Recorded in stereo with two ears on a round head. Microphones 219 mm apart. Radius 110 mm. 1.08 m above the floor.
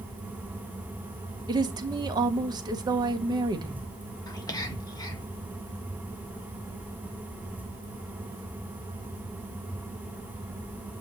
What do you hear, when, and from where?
1.5 s a woman speaking: 15° right (ahead or behind), 1.0 m
4.3 s whispering: 15° left (ahead or behind), 1.5 m